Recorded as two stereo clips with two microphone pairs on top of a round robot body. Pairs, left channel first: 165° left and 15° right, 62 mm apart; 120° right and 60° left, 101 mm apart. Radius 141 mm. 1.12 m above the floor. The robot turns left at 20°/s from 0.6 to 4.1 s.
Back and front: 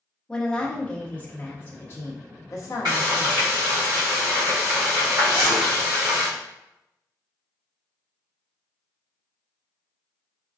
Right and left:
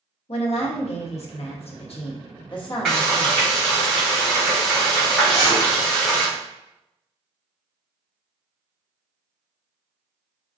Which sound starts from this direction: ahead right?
Frying, at 2.9 s.